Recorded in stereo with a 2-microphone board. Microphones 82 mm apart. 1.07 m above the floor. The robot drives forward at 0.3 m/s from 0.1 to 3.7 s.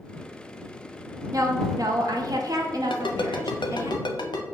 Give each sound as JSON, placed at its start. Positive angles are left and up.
{"t": 1.3, "sound": "a woman speaking", "side_deg": -45, "distance_m": 0.7}
{"t": 2.9, "sound": "a ringtone", "side_deg": 85, "distance_m": 0.5}